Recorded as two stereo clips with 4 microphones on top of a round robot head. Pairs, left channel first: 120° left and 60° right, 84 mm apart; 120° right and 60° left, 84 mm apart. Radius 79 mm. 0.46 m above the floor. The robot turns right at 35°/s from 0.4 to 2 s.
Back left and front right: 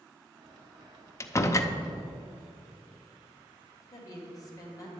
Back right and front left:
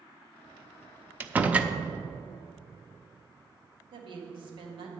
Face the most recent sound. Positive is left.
turn(degrees=75)